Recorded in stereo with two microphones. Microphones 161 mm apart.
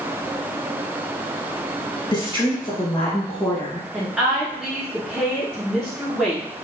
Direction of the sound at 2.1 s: 30° left (ahead or behind).